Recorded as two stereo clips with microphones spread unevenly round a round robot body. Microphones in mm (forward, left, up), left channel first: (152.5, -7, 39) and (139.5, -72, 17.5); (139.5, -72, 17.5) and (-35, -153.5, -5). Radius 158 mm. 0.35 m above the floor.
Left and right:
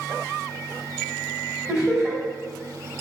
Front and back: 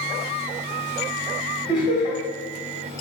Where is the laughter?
25° right, 2.0 m.